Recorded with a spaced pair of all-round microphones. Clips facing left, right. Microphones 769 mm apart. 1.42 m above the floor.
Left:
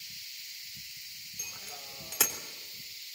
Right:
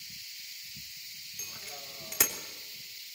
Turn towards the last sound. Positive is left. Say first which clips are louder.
# right 2 dB
turn(degrees=-50)  # may be behind; listen again after turning